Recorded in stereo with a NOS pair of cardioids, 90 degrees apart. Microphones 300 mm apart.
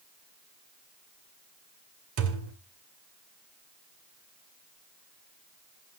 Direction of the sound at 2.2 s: 50° right.